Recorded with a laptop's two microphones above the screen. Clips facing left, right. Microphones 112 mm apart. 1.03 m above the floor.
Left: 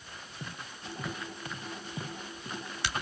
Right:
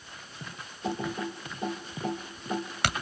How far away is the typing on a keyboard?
About 2.0 m.